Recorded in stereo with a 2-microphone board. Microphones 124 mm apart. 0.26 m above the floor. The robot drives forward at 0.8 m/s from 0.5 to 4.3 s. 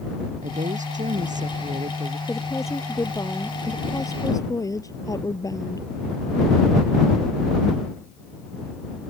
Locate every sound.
0.4 s a woman speaking: 85° right
2.3 s a woman speaking: 20° left (ahead or behind); by 5.9 s 25° left (ahead or behind)